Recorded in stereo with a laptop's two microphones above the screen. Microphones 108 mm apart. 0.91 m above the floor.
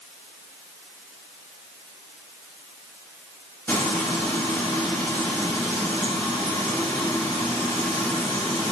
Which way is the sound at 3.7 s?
20° left (ahead or behind).